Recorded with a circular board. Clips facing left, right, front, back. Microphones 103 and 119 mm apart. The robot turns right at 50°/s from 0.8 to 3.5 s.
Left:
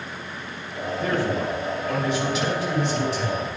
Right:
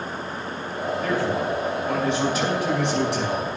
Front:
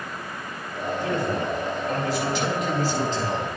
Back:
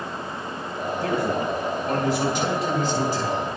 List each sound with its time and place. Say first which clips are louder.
1.0 s a man speaking: left 1 dB, back 2 dB; 155° left, 4.5 m; by 3.5 s 85° right, 4.5 m